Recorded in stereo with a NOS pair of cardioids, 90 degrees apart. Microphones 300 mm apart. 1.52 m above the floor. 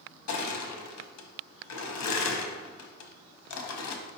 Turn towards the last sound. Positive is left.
turn(degrees=65)